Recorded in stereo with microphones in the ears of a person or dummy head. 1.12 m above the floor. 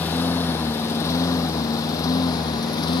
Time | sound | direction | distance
0.0 | a lawn mower | 10° left (ahead or behind) | ?